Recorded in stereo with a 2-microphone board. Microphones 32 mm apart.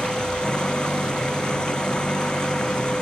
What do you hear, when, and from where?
0.0 s an engine running: 25° left (ahead or behind)